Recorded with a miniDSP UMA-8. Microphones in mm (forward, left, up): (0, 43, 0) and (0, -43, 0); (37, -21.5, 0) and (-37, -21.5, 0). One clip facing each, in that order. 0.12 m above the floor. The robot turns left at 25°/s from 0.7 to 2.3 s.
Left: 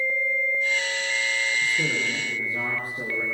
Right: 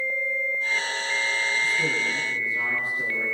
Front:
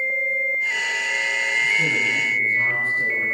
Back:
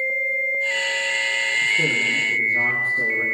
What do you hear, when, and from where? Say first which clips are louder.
1.6 s a man speaking: even, even; 155° left, 9 m; by 3.2 s 140° left, 9 m